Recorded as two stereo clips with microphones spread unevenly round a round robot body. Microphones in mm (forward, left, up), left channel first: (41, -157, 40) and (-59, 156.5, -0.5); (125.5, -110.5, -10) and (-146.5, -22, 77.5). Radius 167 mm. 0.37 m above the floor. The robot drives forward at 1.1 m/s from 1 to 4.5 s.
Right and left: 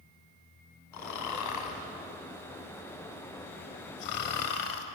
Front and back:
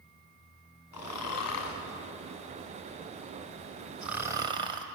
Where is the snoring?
35° right, 3.5 m; by 4.8 s 115° right, 2.5 m.